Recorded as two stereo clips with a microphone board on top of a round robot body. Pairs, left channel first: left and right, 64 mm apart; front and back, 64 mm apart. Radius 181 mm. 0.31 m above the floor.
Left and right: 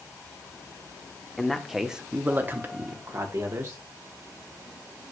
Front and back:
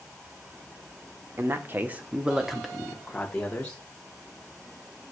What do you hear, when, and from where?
1.4 s a man speaking: 165° left, 1.2 m; by 3.8 s 70° right, 1.7 m